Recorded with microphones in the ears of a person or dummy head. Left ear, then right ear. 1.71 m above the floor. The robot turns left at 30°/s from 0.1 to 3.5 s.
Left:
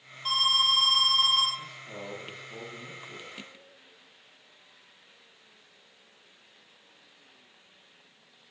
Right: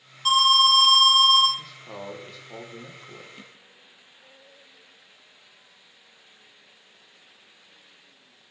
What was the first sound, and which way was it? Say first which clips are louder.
An alarm: right 6 dB; 145° right.